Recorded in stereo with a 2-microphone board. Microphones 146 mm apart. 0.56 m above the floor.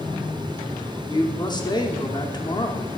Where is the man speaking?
30° left (ahead or behind), 0.9 m.